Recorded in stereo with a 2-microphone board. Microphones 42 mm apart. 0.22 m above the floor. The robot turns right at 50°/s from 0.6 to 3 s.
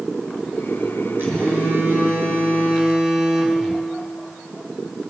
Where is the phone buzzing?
115° right, 3.5 m; by 3.9 s 25° right, 3.5 m.